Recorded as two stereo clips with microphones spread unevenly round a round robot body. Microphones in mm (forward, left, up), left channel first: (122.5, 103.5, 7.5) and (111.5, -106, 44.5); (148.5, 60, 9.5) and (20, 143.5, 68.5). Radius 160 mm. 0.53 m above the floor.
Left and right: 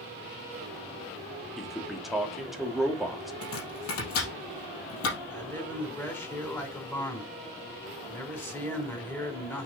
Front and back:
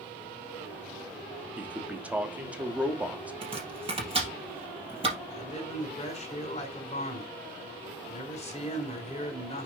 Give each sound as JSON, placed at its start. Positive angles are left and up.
{"t": 1.6, "sound": "a man speaking", "azimuth_deg": 20, "distance_m": 1.2}
{"t": 3.4, "sound": "chopping", "azimuth_deg": 95, "distance_m": 3.5}
{"t": 5.3, "sound": "a man speaking", "azimuth_deg": 5, "distance_m": 3.5}